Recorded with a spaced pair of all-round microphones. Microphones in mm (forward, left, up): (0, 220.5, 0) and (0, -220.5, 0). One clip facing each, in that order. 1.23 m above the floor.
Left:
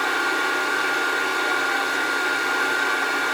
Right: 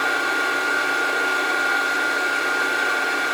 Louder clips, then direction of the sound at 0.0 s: Even; 10° left (ahead or behind).